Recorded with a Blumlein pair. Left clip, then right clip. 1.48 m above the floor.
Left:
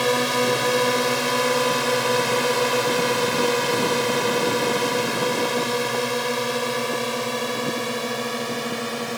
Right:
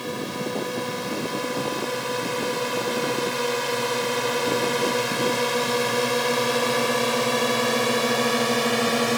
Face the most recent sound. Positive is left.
turn(degrees=-20)